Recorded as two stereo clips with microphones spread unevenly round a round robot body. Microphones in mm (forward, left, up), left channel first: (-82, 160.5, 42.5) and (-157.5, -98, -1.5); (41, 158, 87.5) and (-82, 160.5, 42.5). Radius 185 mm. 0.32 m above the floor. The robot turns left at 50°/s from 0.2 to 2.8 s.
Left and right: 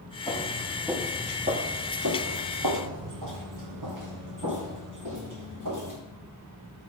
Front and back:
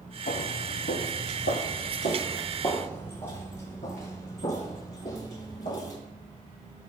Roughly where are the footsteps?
Ahead.